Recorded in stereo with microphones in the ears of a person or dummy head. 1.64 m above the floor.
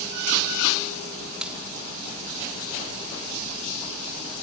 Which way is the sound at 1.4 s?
Centre (ahead or behind).